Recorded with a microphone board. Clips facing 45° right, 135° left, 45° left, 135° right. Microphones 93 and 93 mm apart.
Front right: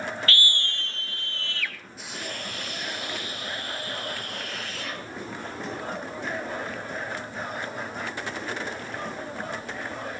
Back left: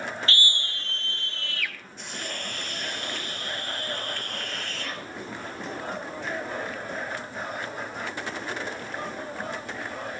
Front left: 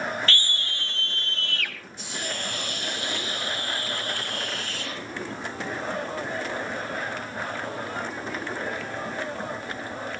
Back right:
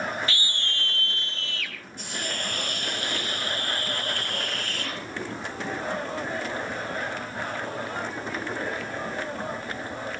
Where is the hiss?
130° right, 2.5 m.